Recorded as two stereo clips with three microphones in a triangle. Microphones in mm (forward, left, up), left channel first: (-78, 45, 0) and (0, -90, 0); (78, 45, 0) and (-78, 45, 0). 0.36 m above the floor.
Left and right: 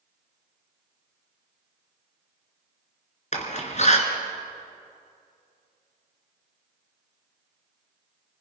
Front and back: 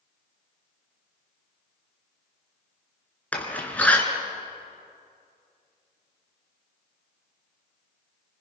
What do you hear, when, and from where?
3.3 s a door slam: 80° left, 3 m